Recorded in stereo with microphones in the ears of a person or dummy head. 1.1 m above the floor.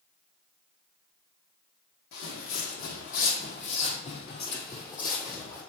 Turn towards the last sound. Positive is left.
turn(degrees=20)  # may be behind; listen again after turning